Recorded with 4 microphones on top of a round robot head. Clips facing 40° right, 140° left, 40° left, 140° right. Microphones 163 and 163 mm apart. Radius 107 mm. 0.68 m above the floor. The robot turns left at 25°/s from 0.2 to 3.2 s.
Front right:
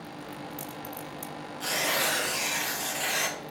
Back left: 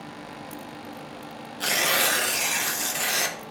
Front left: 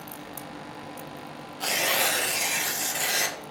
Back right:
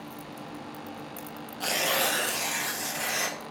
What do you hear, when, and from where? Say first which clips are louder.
1.6 s tearing paper: back left 3 dB, even; 135° left, 1.5 m; by 3.4 s 95° left, 1.5 m